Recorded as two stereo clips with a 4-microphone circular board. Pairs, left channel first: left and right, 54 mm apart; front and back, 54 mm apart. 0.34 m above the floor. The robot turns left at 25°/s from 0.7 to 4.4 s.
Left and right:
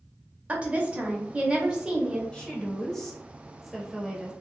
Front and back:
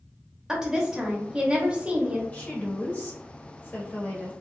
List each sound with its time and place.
0.5 s a woman speaking: 110° right, 0.9 m; by 2.2 s 150° right, 0.9 m
2.3 s a woman speaking: 30° left, 1.0 m; by 4.3 s 20° right, 1.0 m